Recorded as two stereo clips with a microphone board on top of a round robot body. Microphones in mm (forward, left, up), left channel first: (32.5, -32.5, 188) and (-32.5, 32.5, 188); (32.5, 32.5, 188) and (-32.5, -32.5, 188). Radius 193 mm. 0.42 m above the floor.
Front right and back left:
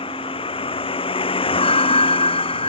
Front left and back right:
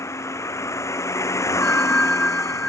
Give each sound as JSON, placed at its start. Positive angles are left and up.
{"t": 0.0, "sound": "a vehicle", "azimuth_deg": -15}
{"t": 1.6, "sound": "a bell", "azimuth_deg": -35}